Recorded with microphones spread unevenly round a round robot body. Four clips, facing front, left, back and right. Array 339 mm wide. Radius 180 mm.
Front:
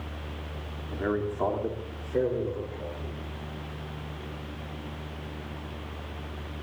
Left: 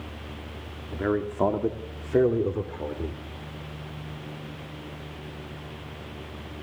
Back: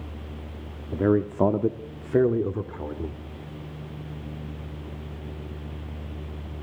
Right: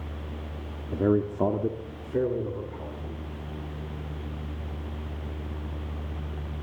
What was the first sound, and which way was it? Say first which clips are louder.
A man speaking: right 2 dB, back 7 dB; 145° right.